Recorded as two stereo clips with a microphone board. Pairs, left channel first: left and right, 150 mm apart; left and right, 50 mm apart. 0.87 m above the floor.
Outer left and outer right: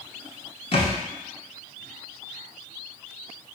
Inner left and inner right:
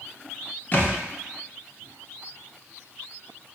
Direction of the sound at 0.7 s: 40° left (ahead or behind).